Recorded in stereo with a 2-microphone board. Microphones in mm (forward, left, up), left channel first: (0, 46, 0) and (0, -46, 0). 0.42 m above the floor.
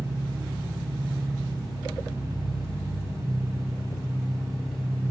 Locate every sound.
0.0 s an engine running: 35° right (ahead or behind), 2 m